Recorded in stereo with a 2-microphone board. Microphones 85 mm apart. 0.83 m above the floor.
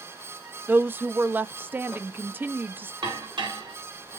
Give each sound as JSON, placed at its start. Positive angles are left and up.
{"t": 0.7, "sound": "a woman speaking", "side_deg": -20, "distance_m": 0.5}
{"t": 3.0, "sound": "dishes clattering", "side_deg": -65, "distance_m": 1.3}